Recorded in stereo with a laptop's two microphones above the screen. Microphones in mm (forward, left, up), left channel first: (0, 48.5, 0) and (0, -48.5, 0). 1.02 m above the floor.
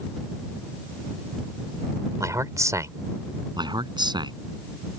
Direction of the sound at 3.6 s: 50° right (ahead or behind).